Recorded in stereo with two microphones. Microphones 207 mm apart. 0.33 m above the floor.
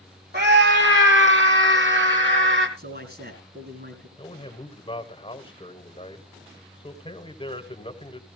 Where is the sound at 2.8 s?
50° right (ahead or behind), 3 m.